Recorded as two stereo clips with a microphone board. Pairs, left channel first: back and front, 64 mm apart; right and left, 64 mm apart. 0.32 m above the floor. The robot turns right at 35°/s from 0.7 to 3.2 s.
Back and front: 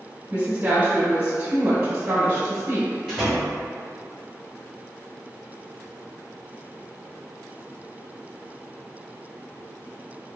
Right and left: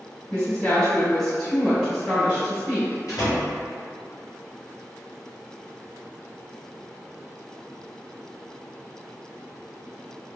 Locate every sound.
0.3 s a woman speaking: 25° right, 1.3 m; by 3.0 s 55° left, 1.3 m
3.1 s a door slam: 95° right, 1.9 m; by 3.5 s 90° right, 1.9 m